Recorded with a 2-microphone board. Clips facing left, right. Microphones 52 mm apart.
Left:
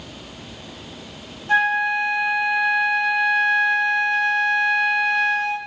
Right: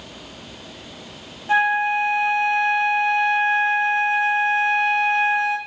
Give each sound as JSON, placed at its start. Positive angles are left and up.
{"t": 1.5, "sound": "a flute", "side_deg": -15, "distance_m": 1.0}